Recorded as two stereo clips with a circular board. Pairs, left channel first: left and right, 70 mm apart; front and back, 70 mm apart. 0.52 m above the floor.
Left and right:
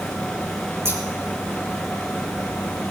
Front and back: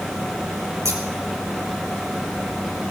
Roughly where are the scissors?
Behind right.